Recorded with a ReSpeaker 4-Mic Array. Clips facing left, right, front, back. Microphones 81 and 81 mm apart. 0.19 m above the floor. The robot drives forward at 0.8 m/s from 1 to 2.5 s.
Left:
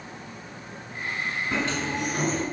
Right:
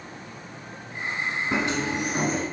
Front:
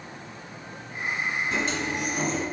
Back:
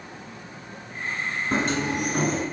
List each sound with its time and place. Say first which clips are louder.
1.5 s a sliding door: right 2 dB, back 4 dB; 155° right, 1.3 m; by 2.4 s 165° right, 1.9 m